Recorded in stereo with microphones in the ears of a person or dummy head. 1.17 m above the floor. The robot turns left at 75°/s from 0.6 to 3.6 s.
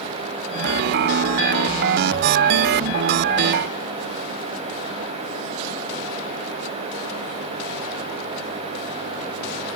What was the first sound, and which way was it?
Only background noise.